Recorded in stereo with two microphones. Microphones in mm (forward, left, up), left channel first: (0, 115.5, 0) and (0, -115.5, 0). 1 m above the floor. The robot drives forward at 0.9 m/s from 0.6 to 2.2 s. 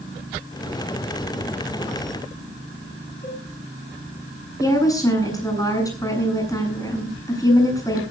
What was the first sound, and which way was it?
A cowbell, 35° left (ahead or behind).